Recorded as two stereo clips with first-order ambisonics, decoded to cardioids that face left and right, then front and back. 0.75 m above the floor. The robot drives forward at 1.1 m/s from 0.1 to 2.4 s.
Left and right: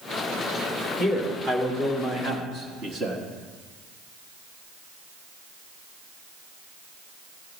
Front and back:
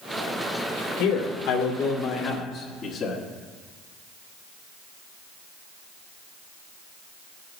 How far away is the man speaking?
About 2.5 m.